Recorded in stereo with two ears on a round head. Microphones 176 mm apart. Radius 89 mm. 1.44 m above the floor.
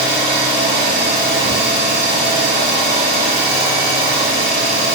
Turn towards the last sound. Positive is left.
turn(degrees=-40)  # may be behind; listen again after turning